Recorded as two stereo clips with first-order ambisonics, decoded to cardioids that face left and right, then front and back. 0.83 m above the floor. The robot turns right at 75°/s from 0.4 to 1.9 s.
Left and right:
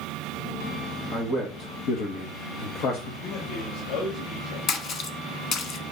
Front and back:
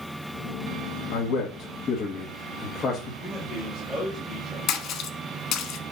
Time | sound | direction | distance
1.1 | a man speaking | straight ahead | 1.3 m
3.2 | a man speaking | 95° left | 3.5 m
4.7 | a splash | 40° left | 1.1 m